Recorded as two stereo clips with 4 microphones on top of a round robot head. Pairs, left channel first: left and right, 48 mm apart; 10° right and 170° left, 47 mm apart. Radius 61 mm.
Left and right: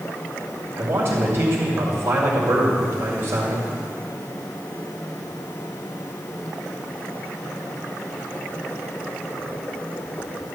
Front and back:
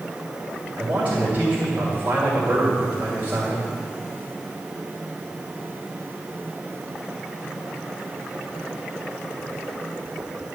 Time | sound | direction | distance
0.8 | a man speaking | 135° right | 2 m